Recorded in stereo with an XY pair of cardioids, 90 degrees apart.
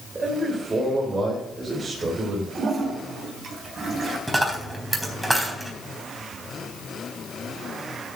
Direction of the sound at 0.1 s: 35° right.